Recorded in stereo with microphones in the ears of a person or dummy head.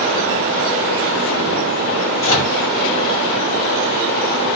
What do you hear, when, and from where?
2.2 s a microwave: 35° left (ahead or behind), 0.8 m